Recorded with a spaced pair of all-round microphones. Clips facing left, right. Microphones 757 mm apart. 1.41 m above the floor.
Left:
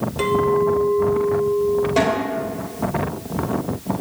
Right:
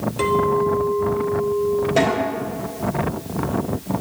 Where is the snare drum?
35° left (ahead or behind), 3.5 m.